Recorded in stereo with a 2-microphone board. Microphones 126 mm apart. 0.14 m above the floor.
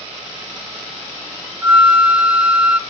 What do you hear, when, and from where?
1.6 s a flute: 10° right (ahead or behind), 0.9 m